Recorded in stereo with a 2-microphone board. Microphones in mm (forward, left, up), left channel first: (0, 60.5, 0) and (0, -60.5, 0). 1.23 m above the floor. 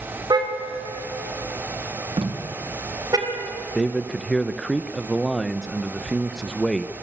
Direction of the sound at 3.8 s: Centre (ahead or behind).